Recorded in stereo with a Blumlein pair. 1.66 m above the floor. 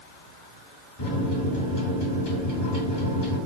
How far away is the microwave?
About 1.3 m.